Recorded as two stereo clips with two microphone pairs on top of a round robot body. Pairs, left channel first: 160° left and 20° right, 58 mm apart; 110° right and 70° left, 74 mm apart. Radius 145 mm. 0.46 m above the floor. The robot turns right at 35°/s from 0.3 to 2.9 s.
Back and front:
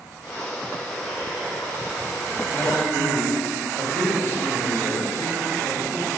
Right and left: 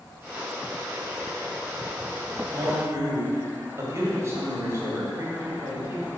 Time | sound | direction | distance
2.5 | a man speaking | 110° left | 2 m